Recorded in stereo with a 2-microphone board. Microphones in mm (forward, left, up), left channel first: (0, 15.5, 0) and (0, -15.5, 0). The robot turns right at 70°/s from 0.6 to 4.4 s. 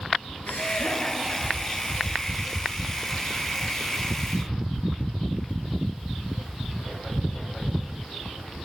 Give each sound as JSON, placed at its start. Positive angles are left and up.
{"t": 0.5, "sound": "laughter", "side_deg": 70, "distance_m": 4.5}